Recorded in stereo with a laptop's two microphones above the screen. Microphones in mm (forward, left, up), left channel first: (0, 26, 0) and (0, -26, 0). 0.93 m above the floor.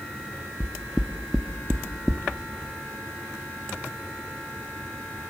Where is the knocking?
10° right (ahead or behind), 0.9 m.